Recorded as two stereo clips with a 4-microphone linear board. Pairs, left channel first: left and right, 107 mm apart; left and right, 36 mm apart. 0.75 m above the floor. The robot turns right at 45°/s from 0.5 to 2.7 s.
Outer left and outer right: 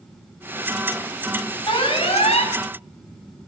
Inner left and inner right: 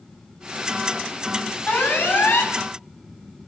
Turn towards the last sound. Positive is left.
turn(degrees=95)